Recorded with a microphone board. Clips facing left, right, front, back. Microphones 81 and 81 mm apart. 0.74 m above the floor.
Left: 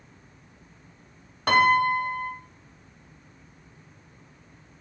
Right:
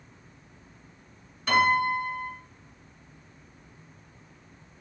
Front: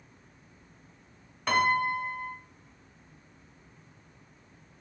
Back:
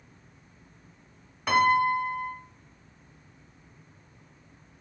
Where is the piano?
95° left, 0.7 m.